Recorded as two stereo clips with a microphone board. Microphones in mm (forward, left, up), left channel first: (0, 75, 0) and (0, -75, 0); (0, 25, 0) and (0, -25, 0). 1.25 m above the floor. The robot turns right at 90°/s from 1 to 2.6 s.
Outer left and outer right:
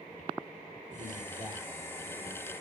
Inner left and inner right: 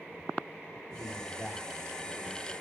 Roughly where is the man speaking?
Right.